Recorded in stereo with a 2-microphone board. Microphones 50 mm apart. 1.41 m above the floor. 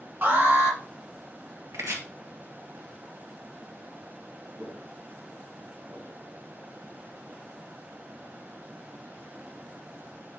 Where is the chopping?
75° right (ahead or behind), 1.8 m.